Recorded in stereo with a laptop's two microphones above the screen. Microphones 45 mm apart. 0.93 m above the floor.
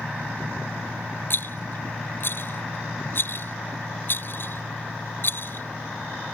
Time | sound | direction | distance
1.3 | a rattle | 50° left (ahead or behind) | ?